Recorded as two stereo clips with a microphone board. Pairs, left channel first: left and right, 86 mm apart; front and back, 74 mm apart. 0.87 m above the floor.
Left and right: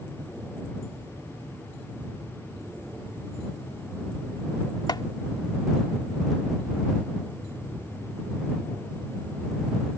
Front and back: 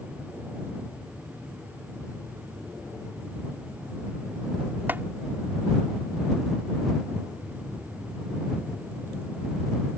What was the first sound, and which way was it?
Chopping, 120° left.